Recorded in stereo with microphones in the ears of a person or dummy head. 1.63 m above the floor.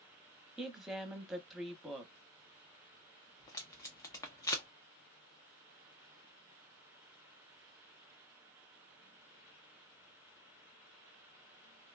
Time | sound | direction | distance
0.6 | a woman speaking | 5° right (ahead or behind) | 0.8 m
3.4 | tape being pulled | 20° left (ahead or behind) | 0.7 m